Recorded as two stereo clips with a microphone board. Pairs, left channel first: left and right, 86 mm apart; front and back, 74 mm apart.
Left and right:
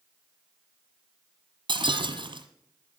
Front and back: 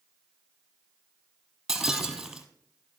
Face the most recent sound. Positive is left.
turn(degrees=-95)